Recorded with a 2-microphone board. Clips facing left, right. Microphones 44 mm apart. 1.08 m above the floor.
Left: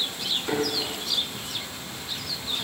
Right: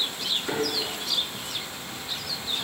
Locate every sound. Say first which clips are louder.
0.5 s a thud: left 2 dB; 15° left (ahead or behind), 4.5 m